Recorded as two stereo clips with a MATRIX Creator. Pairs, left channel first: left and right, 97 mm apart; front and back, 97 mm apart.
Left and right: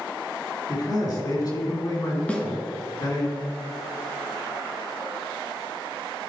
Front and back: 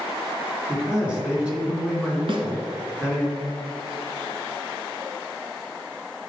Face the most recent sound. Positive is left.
turn(degrees=165)